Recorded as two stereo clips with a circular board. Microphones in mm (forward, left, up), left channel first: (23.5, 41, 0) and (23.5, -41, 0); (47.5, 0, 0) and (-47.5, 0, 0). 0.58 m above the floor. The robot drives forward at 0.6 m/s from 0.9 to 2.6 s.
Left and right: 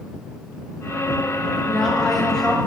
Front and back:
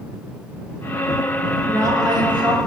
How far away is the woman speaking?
About 0.8 m.